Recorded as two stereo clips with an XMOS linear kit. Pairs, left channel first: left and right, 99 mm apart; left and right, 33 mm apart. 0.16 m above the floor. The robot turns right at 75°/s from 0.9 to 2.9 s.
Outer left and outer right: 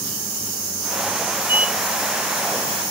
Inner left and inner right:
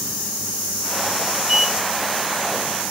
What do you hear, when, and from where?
1.4 s a sliding door: 25° right (ahead or behind); by 2.8 s 75° left (ahead or behind)